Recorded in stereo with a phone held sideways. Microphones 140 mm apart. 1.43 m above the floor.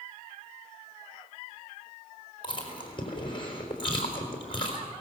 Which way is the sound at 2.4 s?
35° left (ahead or behind).